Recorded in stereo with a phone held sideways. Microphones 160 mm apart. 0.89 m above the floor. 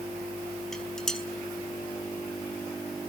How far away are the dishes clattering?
About 4.5 m.